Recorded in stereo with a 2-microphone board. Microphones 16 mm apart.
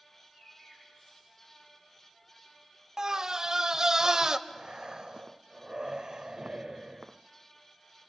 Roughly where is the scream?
Right.